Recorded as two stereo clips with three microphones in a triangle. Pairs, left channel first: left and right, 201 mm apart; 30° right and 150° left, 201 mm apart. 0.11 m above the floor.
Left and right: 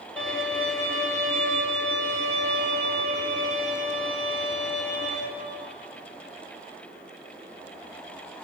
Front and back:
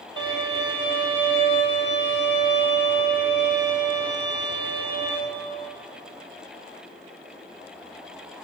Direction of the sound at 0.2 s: 175° left.